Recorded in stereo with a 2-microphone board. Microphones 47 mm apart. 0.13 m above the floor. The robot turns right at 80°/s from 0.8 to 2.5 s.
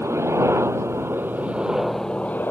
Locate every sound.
0.0 s a helicopter: 90° right; by 2.5 s 50° left